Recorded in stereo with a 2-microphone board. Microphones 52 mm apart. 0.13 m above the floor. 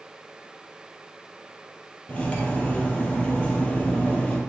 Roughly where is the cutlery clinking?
Left.